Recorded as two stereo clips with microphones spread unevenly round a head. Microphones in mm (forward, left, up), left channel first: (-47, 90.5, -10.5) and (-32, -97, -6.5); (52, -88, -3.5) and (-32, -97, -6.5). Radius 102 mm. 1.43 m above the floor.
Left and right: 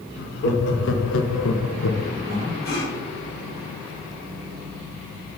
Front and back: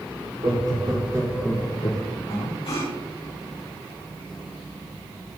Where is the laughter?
125° left, 3 m; by 2.2 s 45° left, 1.0 m.